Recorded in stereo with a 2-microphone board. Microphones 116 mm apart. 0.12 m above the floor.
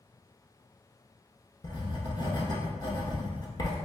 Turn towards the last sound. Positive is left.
turn(degrees=40)  # may be behind; listen again after turning